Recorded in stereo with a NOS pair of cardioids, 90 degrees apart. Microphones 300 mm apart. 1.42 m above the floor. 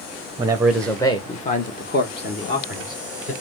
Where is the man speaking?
15° right, 0.7 m; by 3.3 s 45° left, 2.0 m.